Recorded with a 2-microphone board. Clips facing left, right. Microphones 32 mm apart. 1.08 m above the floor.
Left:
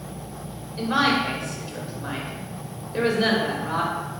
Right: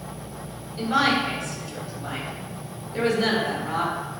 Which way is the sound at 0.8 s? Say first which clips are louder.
Even; 20° left (ahead or behind).